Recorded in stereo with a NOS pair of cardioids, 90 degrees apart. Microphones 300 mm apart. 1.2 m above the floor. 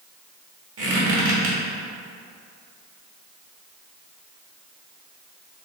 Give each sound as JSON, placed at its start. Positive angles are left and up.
{"t": 0.8, "sound": "a squeak", "azimuth_deg": -45, "distance_m": 1.8}